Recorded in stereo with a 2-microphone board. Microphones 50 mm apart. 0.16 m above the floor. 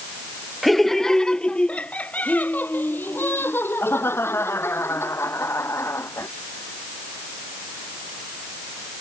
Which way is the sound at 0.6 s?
Centre (ahead or behind).